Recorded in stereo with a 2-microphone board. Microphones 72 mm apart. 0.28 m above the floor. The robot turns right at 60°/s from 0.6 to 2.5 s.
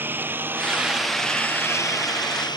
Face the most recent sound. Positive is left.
turn(degrees=85)